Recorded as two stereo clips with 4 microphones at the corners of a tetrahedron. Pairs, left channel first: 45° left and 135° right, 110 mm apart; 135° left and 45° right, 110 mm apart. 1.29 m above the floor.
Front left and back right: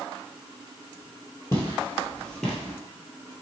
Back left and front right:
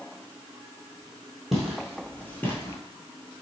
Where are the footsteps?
45° left, 1.4 m; by 2.8 s 145° left, 1.3 m.